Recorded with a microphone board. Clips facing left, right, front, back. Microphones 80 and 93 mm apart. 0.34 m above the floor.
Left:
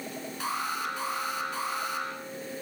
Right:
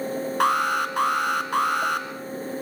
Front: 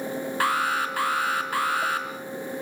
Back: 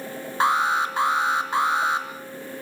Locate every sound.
0.4 s an alarm: 110° right, 3.5 m